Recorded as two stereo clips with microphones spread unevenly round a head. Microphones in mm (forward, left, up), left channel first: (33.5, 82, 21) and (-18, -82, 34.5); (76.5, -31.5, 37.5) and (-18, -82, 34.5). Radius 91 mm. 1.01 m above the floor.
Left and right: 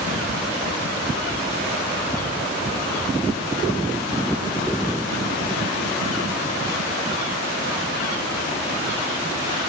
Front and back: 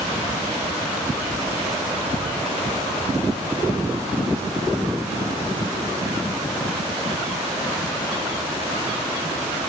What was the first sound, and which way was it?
Only background noise.